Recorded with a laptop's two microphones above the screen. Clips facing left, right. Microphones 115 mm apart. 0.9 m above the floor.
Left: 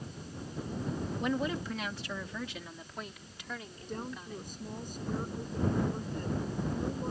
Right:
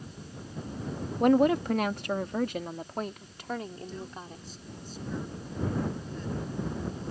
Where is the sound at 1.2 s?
60° right (ahead or behind); by 4.4 s 45° right (ahead or behind).